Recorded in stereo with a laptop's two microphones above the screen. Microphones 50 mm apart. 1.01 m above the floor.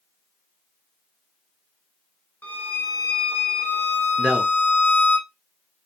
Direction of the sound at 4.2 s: 15° right (ahead or behind).